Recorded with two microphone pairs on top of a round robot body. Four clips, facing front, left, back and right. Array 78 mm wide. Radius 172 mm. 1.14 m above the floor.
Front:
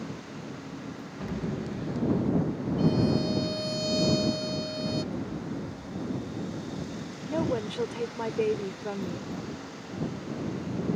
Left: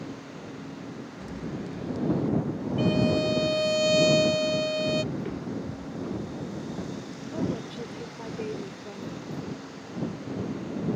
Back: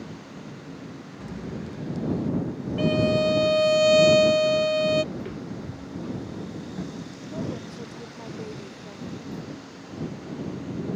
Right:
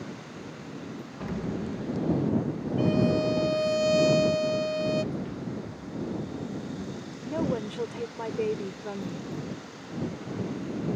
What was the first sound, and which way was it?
An explosion, 80° right.